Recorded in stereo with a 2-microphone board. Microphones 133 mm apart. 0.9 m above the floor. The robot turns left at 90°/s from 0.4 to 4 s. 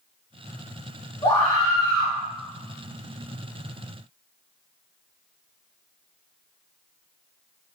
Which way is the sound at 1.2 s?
110° left.